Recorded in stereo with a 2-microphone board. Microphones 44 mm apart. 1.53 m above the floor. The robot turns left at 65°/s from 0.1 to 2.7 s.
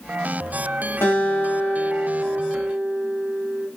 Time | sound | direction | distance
1.0 | a guitar | 85° left | 0.7 m